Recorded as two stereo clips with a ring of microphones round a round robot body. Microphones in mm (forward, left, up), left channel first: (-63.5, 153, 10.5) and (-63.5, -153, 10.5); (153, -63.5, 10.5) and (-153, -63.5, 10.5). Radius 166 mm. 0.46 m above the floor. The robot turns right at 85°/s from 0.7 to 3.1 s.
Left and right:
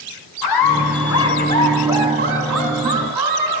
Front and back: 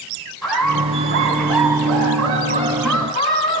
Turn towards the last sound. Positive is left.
turn(degrees=-65)